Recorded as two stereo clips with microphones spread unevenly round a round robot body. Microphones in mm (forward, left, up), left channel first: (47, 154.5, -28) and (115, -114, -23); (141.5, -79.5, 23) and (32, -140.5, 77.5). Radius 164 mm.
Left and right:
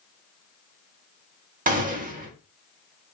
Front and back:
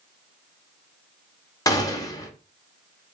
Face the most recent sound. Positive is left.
turn(degrees=-15)